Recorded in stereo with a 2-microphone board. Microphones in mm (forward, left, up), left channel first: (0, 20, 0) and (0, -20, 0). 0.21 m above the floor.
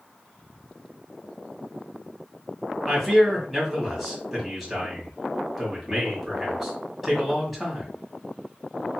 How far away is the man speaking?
About 1.4 m.